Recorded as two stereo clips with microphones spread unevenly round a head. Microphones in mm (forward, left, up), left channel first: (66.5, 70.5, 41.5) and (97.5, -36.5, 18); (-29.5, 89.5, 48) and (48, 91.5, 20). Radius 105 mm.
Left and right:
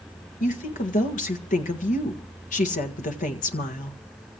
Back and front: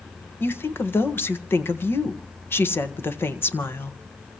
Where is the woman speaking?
120° left, 1.6 m.